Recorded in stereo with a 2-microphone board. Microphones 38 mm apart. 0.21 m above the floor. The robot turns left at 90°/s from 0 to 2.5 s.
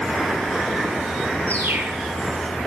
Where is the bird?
90° right, 2.5 m; by 2.0 s 140° right, 2.5 m.